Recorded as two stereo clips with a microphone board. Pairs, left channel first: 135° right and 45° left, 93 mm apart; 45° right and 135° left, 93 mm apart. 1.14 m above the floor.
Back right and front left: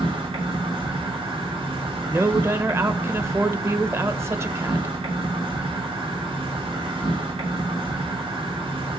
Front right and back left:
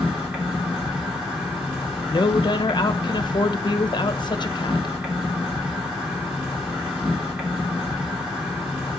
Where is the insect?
55° left, 3 m.